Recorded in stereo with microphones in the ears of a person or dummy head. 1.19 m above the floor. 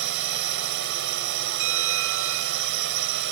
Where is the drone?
60° right (ahead or behind).